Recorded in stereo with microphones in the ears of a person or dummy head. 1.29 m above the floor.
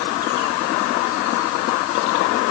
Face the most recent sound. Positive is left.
No sound to turn to.